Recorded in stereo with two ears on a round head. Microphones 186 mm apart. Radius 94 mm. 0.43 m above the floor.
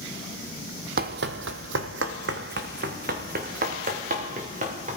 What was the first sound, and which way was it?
Running footsteps, 45° right (ahead or behind).